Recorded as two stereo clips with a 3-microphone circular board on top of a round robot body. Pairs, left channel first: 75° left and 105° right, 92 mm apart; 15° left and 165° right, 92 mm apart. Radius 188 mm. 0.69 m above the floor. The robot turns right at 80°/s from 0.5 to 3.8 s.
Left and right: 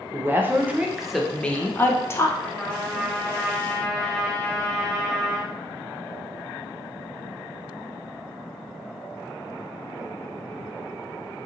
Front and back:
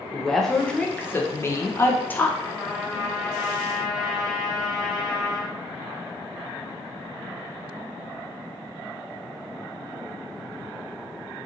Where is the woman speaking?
65° right, 0.7 m; by 2.3 s 75° left, 0.7 m.